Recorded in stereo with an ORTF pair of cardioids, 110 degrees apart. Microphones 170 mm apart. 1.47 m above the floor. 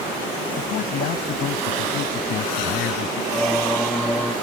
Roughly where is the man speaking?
Left.